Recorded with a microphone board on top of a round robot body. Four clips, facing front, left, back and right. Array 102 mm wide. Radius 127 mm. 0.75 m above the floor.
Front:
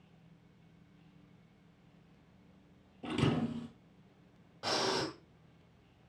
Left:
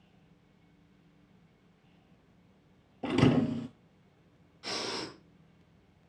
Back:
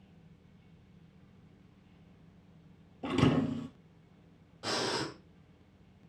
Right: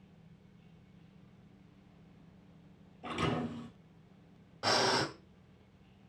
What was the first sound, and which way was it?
A thud, 105° left.